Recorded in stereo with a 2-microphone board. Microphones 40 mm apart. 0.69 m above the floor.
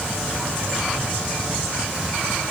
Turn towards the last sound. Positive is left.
No sound to turn to.